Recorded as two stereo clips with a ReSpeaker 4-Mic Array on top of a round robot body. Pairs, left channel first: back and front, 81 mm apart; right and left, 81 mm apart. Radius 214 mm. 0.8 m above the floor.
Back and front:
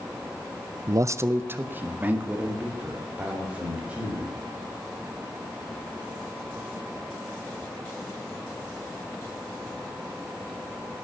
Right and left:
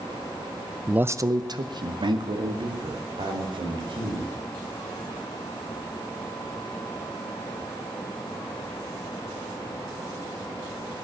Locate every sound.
0.9 s a man speaking: 10° left, 0.7 m; by 4.3 s 75° left, 5.5 m